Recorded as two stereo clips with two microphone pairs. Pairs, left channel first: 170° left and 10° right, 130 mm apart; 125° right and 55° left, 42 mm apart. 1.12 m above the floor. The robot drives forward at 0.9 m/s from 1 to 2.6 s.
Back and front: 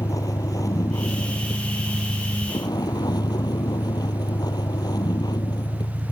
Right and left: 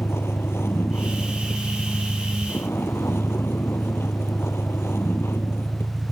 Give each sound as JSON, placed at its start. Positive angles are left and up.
{"t": 0.0, "sound": "a vehicle", "azimuth_deg": -125}